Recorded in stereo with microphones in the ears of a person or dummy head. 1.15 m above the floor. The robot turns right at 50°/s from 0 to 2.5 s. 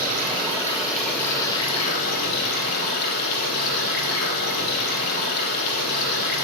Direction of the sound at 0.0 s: 50° right.